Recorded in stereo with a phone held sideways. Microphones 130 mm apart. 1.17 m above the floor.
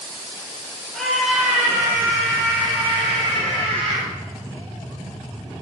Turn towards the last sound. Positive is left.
turn(degrees=-50)  # may be behind; listen again after turning